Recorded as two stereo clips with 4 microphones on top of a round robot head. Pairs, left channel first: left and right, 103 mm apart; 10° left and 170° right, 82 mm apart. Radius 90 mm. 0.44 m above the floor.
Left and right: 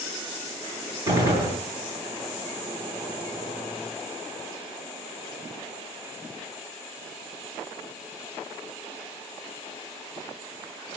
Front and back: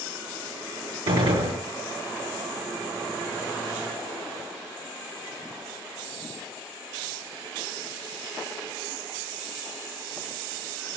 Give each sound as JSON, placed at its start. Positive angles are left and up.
{"t": 1.1, "sound": "a gunshot", "azimuth_deg": -155, "distance_m": 8.5}